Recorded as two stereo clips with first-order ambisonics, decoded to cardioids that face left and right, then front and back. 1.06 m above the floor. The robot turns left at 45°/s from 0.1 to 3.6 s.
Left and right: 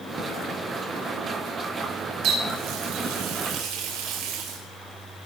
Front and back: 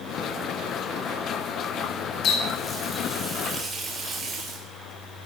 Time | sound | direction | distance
2.2 | a running tap | 45° right | 2.5 m